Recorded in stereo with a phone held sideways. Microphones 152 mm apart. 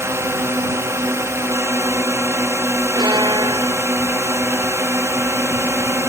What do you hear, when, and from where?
0.0 s a drone: 20° right (ahead or behind)
3.0 s a violin: 30° right (ahead or behind)